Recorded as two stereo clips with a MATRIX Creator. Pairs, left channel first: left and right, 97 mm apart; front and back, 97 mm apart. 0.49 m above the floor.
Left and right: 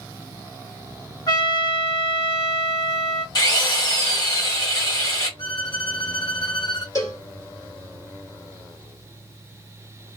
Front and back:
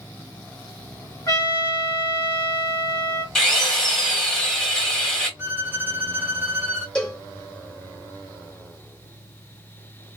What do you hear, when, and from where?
1.3 s a trumpet: 40° left, 1.2 m
3.4 s a drill: 80° left, 1.6 m
5.4 s a violin: 115° left, 0.7 m
7.0 s a cowbell: 75° left, 1.5 m